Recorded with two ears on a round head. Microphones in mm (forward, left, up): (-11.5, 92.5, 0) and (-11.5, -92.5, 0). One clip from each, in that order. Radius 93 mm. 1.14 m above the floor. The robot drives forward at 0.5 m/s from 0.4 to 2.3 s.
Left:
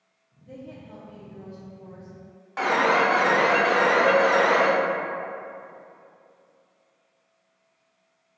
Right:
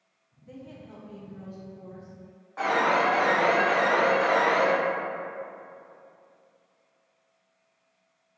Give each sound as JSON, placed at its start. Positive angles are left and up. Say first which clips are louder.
{"t": 0.4, "sound": "a woman speaking", "louder": "left 3 dB", "side_deg": -20, "distance_m": 0.7}
{"t": 2.6, "sound": "an alarm", "louder": "left 3 dB", "side_deg": 65, "distance_m": 0.7}